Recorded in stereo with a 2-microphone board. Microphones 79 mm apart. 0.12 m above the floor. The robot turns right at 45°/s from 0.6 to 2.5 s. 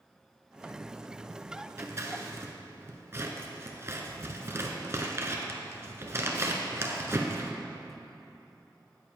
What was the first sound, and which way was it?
Scissors, 40° right (ahead or behind).